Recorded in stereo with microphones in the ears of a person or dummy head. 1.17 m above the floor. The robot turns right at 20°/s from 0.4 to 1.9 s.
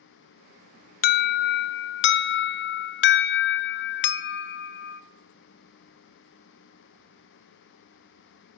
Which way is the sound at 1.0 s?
45° left (ahead or behind).